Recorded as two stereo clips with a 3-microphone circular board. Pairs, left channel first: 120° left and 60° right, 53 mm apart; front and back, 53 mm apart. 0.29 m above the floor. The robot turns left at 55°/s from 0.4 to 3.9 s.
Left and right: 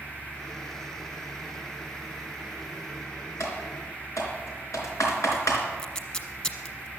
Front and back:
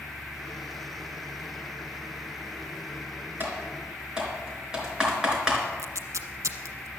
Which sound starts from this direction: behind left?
Typing on a keyboard, at 3.4 s.